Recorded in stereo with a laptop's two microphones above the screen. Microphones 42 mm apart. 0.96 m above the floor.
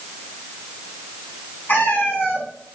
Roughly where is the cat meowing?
Left.